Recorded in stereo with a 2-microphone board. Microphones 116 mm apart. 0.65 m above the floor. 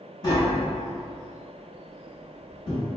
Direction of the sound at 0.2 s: 30° left (ahead or behind).